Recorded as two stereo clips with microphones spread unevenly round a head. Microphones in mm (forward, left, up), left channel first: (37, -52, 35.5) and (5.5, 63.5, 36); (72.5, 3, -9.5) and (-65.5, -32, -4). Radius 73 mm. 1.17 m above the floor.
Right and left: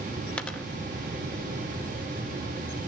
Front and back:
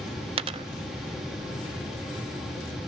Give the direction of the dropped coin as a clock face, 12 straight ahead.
5 o'clock.